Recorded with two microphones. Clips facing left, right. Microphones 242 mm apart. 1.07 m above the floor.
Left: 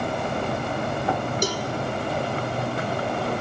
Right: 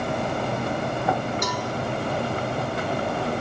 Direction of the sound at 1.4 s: 35° left (ahead or behind).